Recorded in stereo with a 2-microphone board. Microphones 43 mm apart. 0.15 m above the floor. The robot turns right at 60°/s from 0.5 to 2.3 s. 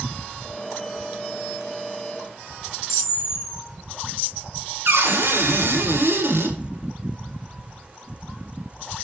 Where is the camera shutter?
5° right (ahead or behind), 4 m.